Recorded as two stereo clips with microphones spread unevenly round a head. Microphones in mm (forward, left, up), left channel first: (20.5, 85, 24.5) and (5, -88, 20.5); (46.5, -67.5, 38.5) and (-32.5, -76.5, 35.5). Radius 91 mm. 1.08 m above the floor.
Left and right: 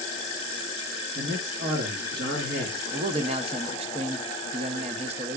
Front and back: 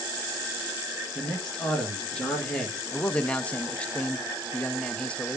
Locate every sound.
1.1 s a man speaking: 70° right, 1.8 m
2.9 s a man speaking: 65° right, 0.8 m